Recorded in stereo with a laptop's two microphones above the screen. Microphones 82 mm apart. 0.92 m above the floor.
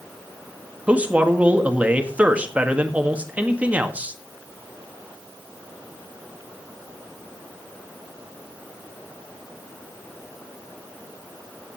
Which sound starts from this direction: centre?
A man speaking, at 0.9 s.